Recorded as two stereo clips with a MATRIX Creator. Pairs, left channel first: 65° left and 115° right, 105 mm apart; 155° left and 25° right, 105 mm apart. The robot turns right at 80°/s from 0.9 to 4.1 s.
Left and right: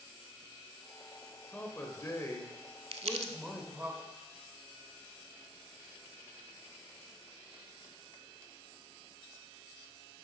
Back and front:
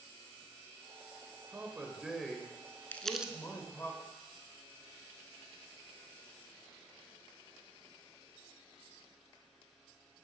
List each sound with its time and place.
1.5 s a man speaking: 10° left, 0.9 m; by 3.9 s 160° right, 0.9 m
2.9 s crumpling: 130° right, 0.6 m; by 3.3 s 95° right, 0.6 m